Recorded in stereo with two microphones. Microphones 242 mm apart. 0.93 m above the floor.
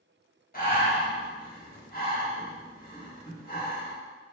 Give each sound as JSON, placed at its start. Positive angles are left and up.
{"t": 0.5, "sound": "breathing", "side_deg": 35, "distance_m": 1.3}